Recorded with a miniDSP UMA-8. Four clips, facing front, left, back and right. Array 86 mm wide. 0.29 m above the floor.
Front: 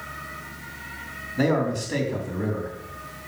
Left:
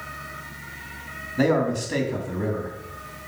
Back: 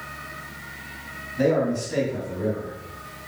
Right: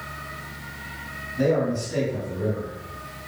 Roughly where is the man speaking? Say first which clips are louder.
Left 1 dB, back 2 dB; ahead left.